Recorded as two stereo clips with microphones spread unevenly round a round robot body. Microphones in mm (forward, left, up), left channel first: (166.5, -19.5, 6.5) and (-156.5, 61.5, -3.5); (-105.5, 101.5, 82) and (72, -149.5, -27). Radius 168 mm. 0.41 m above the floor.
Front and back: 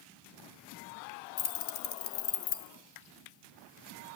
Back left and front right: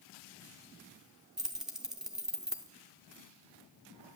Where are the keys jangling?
Straight ahead, 0.8 m.